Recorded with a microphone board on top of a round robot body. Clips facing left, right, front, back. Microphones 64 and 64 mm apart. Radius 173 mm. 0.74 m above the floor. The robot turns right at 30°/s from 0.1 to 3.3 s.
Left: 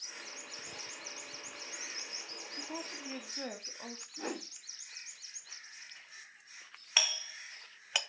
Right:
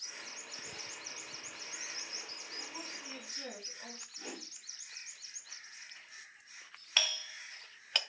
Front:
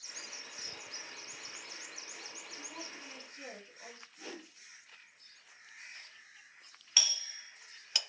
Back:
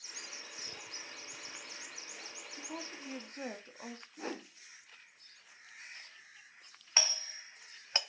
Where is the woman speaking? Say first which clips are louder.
Left 5 dB, back 4 dB; 120° left, 1.7 m; by 4.1 s 140° left, 1.7 m.